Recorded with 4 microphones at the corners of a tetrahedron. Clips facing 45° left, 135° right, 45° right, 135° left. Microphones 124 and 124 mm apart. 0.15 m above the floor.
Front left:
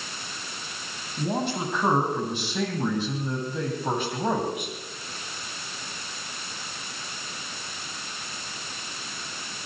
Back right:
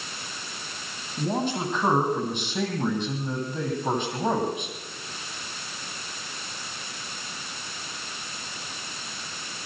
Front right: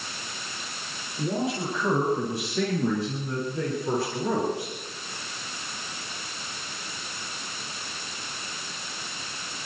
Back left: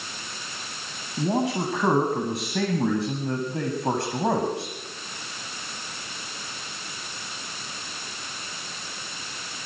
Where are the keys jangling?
No keys jangling in this recording.